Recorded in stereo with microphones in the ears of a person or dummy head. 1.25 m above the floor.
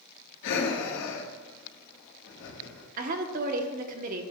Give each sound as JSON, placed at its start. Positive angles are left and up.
{"t": 0.4, "sound": "breathing", "side_deg": 60, "distance_m": 1.5}
{"t": 3.0, "sound": "a woman speaking", "side_deg": -50, "distance_m": 0.9}